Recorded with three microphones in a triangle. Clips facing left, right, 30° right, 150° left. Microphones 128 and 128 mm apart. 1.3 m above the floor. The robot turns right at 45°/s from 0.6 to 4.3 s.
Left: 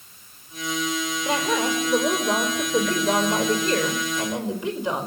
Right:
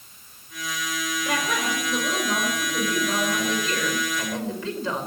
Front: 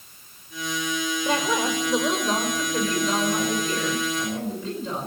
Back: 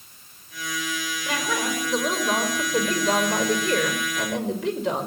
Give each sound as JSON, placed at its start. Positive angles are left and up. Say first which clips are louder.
{"t": 1.2, "sound": "a woman speaking", "louder": "left 4 dB, front 2 dB", "azimuth_deg": 25, "distance_m": 5.0}